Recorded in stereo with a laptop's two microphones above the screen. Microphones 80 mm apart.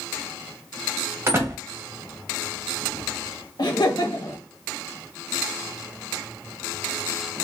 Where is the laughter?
60° left (ahead or behind), 1.4 m.